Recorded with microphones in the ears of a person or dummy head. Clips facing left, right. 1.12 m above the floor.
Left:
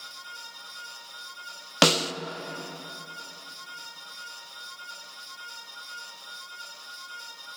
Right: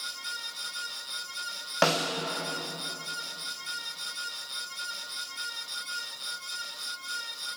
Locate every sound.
1.8 s a snare drum: 55° left (ahead or behind), 0.5 m